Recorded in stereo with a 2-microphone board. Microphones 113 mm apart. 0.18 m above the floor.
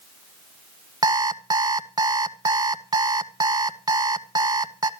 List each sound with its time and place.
1.0 s an alarm clock: 35° right (ahead or behind), 0.7 m